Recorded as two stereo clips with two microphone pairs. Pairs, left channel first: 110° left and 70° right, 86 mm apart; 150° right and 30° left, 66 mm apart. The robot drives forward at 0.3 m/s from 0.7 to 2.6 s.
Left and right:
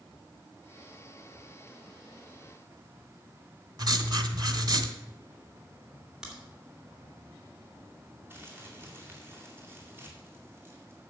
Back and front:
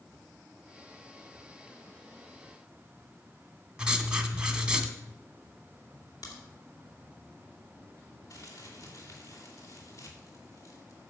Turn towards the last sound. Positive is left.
turn(degrees=-130)